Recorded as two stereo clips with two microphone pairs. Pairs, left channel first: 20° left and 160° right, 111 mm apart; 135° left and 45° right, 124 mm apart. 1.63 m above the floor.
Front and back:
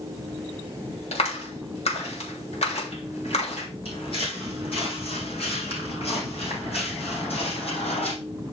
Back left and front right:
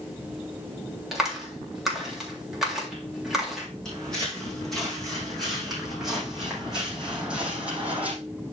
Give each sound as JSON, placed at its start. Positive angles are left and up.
{"t": 1.1, "sound": "a clap", "azimuth_deg": 40, "distance_m": 3.0}
{"t": 3.9, "sound": "footsteps", "azimuth_deg": 50, "distance_m": 6.0}